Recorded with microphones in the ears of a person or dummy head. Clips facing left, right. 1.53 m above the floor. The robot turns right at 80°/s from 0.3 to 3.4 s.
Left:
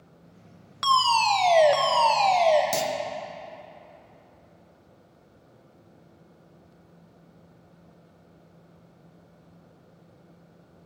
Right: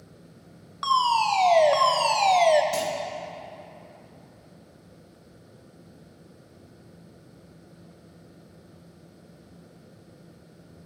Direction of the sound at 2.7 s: 75° left (ahead or behind).